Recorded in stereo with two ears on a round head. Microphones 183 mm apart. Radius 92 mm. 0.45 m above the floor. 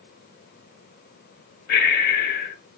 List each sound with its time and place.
1.7 s breathing: 50° left (ahead or behind), 0.9 m